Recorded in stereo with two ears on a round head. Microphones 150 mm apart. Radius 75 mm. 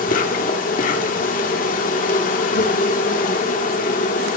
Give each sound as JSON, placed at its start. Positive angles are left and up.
{"t": 0.0, "sound": "an insect", "side_deg": 50, "distance_m": 2.0}